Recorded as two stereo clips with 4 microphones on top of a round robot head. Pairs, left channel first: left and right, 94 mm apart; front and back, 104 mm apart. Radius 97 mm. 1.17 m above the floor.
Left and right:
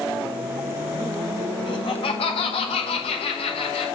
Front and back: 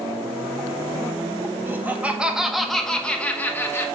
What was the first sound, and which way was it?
Laughter, 110° left.